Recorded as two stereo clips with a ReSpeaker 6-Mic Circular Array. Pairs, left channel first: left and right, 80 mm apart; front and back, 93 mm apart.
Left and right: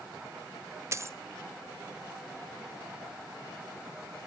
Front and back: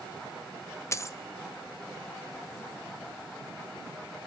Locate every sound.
0.9 s a dropped coin: 50° right, 0.5 m